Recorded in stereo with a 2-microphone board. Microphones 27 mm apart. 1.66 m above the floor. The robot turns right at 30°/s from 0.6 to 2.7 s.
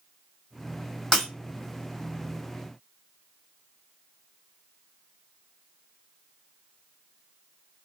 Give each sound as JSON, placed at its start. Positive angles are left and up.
{"t": 1.1, "sound": "breaking glass", "side_deg": 25, "distance_m": 1.8}